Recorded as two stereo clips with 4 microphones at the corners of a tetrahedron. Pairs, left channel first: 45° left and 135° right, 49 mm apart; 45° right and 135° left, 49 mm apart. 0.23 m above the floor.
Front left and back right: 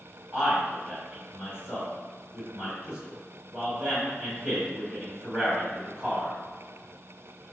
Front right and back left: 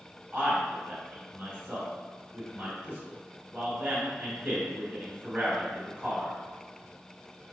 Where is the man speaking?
Straight behind, 1.4 m.